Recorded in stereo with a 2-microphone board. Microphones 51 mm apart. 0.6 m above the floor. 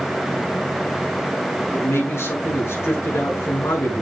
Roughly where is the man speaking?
Left.